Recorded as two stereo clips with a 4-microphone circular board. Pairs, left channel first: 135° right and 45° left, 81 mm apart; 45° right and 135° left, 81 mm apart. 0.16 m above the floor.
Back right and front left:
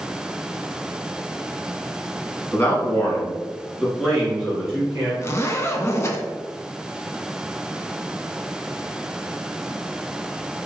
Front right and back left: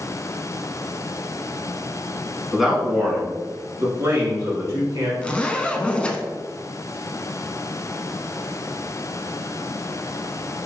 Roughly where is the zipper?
Right.